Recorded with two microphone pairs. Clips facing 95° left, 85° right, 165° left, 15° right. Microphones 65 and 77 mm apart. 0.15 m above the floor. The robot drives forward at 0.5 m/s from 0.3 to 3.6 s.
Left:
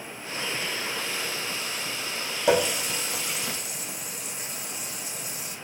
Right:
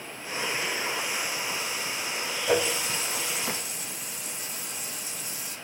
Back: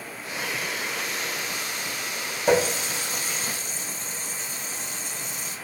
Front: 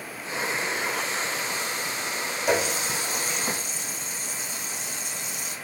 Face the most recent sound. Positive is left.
turn(degrees=115)